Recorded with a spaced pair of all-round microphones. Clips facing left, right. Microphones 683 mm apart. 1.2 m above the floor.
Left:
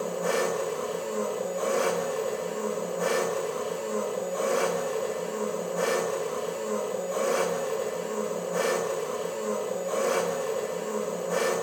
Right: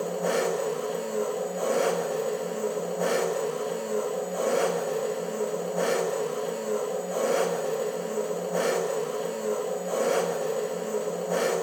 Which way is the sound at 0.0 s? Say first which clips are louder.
Right 1 dB; 35° left (ahead or behind).